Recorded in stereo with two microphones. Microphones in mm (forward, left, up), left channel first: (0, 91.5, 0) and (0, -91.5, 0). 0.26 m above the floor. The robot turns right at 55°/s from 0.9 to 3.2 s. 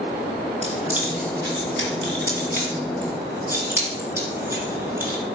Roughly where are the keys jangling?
Right.